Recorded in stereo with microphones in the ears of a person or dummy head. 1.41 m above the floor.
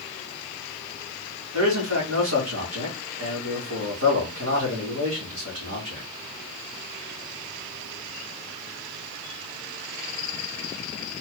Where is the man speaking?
75° right (ahead or behind), 2 m.